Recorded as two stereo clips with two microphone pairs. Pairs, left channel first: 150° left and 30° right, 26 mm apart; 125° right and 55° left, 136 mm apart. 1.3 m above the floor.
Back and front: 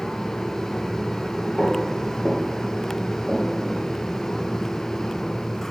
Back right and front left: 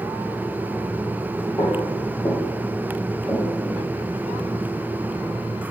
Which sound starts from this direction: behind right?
Footsteps, at 1.6 s.